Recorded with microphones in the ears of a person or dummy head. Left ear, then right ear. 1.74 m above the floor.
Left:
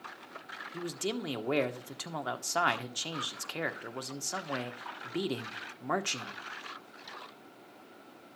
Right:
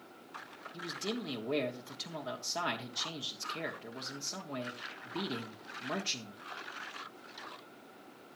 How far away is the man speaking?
About 1.1 m.